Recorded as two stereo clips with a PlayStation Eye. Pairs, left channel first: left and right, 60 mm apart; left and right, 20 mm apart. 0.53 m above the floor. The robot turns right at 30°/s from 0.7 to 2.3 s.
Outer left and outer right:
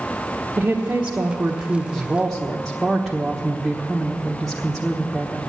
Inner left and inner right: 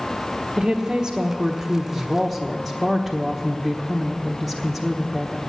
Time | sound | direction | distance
0.6 | a woman speaking | 45° right | 1.2 m